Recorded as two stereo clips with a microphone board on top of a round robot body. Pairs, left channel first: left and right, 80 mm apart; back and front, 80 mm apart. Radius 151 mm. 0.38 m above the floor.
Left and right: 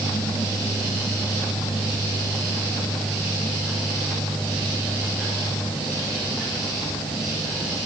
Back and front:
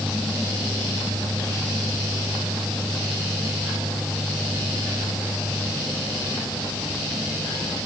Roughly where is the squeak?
No squeak in this recording.